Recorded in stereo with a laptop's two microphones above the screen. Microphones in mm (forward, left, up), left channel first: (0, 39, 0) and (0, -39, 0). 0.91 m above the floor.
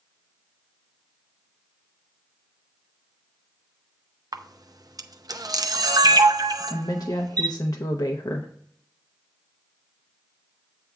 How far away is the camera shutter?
About 0.6 m.